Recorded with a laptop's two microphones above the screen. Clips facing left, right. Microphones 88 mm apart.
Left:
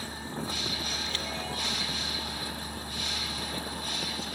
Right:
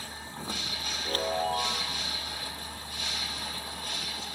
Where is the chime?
45° right (ahead or behind).